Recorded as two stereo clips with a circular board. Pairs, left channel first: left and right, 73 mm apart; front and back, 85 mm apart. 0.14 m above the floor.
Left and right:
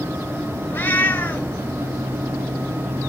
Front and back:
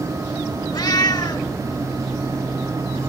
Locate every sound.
0.7 s a cat meowing: 30° left, 1.0 m